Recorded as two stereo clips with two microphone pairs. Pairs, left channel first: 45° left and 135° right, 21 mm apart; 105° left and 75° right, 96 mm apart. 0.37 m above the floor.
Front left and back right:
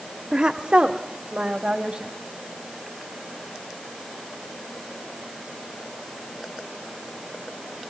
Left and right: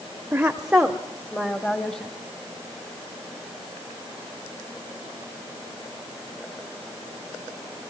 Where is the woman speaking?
130° right, 0.9 m; by 2.1 s straight behind, 2 m.